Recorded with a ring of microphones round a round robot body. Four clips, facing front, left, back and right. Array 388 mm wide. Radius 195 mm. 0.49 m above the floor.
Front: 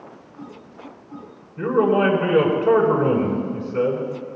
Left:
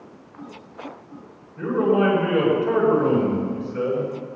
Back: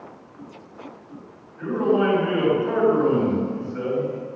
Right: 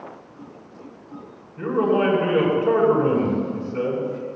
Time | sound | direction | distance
1.6 | a man speaking | 5° right | 7.5 m